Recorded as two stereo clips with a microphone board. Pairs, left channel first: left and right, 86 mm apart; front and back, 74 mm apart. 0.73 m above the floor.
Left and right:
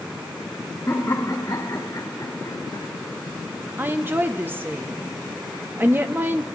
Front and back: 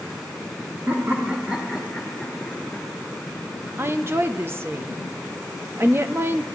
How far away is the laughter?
About 1.5 m.